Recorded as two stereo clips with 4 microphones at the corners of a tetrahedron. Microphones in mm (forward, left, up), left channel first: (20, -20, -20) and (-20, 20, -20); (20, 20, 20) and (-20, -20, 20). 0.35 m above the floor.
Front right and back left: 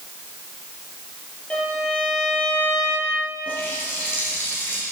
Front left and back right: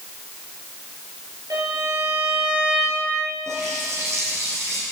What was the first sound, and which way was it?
A violin, 110° right.